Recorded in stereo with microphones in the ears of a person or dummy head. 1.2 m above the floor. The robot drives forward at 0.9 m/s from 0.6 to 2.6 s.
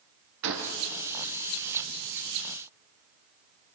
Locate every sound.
0.4 s a gunshot: 70° right (ahead or behind), 3 m